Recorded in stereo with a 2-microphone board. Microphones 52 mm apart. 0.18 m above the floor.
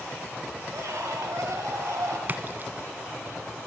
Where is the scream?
70° right (ahead or behind), 4 m.